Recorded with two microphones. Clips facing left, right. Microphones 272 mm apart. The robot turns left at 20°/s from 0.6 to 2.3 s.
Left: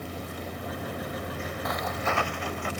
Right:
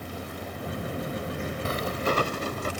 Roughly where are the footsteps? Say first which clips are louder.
Right 4 dB; right.